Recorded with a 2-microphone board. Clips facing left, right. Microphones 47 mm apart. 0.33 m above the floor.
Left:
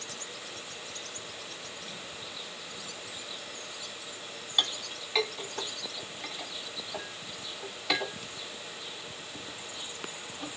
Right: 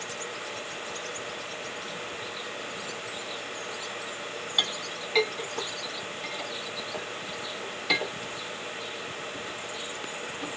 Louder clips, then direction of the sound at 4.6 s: Right 1 dB; centre (ahead or behind).